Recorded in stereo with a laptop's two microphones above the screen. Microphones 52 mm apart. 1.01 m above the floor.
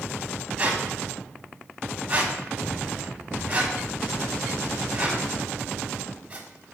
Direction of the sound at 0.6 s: 25° right (ahead or behind).